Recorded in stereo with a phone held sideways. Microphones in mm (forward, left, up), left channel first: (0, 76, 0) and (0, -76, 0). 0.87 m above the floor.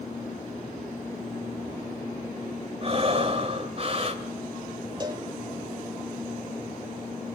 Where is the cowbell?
30° right (ahead or behind), 1.3 m.